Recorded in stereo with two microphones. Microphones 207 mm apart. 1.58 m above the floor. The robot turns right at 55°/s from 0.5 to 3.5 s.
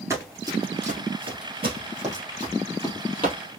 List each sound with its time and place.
0.1 s running footsteps: 15° right (ahead or behind), 2 m; by 3.4 s 30° left (ahead or behind), 3 m